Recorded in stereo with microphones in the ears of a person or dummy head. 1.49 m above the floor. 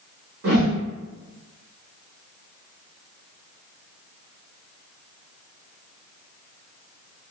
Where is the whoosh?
55° right (ahead or behind), 1.2 m.